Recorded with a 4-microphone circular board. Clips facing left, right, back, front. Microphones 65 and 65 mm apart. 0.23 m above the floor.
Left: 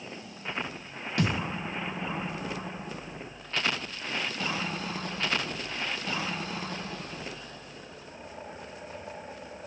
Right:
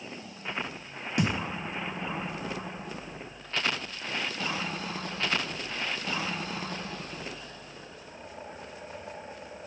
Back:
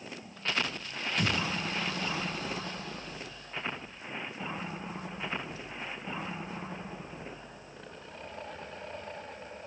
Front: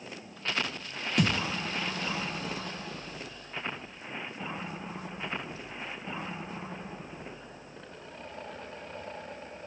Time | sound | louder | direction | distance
1.2 | a thud | even, front 3 dB | 20° right | 1.3 m